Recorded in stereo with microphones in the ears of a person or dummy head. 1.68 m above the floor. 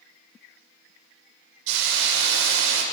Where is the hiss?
65° right (ahead or behind), 6.5 m.